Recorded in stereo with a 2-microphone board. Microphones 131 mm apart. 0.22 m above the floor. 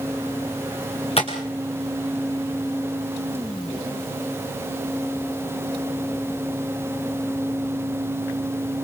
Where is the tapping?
50° left (ahead or behind), 5 m.